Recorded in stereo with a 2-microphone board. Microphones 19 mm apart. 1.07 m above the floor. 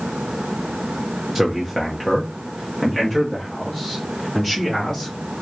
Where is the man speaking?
Centre (ahead or behind), 0.9 m; by 5.1 s 25° left (ahead or behind), 3.5 m.